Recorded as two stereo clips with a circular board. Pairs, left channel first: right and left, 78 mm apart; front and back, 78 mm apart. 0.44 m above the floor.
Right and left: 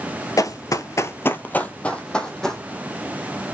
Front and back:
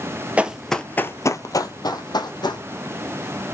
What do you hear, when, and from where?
0.4 s running footsteps: 110° right, 0.6 m; by 2.6 s 5° right, 1.4 m